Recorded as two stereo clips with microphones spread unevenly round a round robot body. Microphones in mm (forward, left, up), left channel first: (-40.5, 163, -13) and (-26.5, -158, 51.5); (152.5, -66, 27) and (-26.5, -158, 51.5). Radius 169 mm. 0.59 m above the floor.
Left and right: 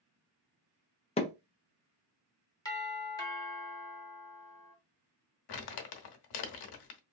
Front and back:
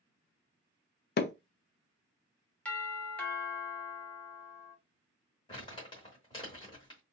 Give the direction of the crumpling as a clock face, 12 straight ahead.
9 o'clock.